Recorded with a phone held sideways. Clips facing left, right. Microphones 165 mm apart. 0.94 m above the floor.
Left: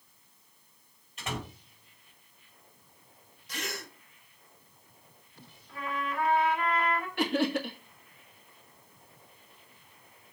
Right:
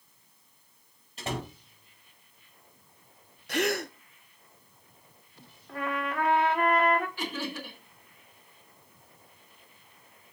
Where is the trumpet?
65° right (ahead or behind), 1.5 m.